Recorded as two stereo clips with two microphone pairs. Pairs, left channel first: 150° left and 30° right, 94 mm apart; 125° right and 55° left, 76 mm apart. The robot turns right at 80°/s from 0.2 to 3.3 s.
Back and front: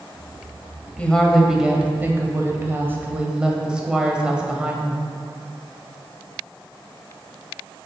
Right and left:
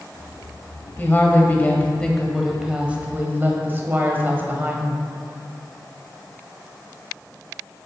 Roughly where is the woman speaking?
Behind right.